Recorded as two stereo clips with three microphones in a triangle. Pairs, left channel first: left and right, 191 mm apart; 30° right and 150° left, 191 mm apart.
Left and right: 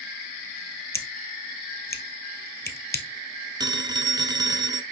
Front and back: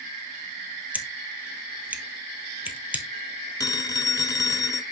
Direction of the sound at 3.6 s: 65° right.